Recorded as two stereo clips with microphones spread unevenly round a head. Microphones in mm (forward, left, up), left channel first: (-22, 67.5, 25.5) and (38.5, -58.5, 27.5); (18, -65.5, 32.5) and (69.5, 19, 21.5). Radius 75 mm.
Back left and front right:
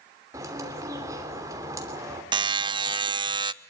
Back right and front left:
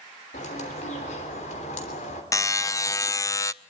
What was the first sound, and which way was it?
A bird, 135° right.